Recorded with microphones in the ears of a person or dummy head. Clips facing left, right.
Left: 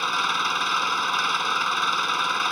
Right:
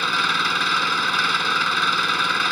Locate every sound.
0.0 s an engine running: 20° right (ahead or behind)